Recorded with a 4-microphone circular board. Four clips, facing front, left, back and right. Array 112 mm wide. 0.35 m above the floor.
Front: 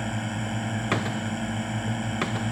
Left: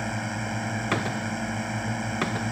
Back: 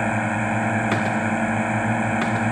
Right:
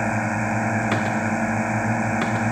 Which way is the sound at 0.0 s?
140° right.